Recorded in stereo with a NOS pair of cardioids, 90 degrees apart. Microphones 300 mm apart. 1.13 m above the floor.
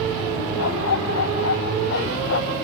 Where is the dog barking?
55° left; by 2.5 s 45° left.